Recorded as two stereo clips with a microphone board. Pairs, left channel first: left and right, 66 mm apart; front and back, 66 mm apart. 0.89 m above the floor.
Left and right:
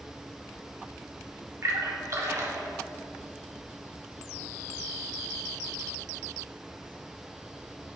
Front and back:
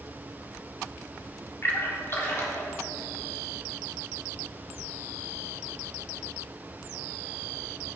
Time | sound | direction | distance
1.6 | a splash | 50° right | 1.5 m